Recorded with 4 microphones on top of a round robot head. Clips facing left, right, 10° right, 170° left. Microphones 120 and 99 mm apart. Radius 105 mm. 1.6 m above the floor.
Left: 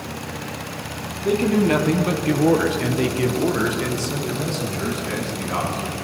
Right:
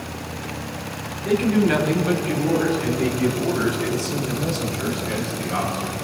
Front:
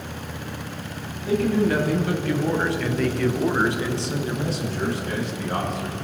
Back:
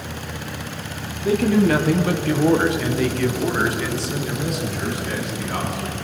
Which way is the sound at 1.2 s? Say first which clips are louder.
Even, back 4 dB; 155° left.